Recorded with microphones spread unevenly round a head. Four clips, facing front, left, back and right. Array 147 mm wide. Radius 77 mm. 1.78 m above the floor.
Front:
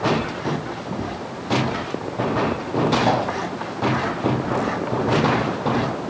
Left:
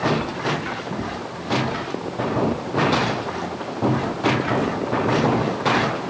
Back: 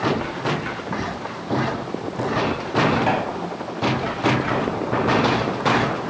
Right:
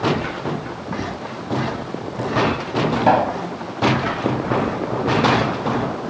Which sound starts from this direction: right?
A pop, at 3.0 s.